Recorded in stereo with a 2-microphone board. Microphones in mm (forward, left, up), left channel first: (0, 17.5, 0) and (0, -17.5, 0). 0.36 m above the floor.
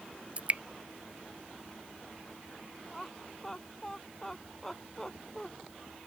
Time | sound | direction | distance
0.4 | dripping | 35° right (ahead or behind) | ?
2.9 | laughter | 10° left (ahead or behind) | ?